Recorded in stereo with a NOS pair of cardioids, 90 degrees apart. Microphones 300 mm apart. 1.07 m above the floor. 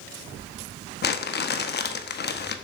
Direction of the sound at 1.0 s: 35° left.